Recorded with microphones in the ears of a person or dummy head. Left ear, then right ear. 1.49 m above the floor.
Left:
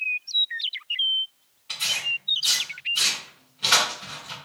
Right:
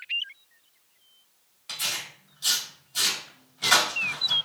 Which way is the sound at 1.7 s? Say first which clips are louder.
Left 6 dB; 40° right (ahead or behind).